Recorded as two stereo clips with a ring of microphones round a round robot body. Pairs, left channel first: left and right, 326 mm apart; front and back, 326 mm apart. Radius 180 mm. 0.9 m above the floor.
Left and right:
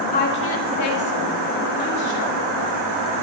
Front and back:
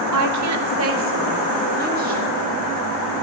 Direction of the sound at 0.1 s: 155° left.